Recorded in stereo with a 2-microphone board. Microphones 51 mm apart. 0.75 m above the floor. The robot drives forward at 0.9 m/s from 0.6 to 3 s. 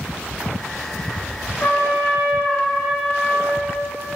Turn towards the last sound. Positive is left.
turn(degrees=25)  # may be behind; listen again after turning